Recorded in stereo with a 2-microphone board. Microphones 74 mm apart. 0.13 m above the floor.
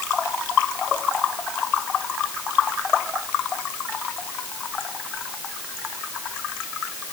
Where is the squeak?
No squeak in this recording.